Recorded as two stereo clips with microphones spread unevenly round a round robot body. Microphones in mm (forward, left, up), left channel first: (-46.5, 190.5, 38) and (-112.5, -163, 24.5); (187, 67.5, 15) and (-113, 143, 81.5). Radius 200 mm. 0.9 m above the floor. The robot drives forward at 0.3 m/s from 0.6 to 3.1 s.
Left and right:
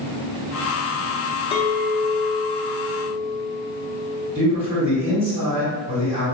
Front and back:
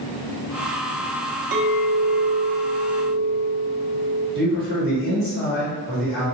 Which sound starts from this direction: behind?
A man speaking, at 4.3 s.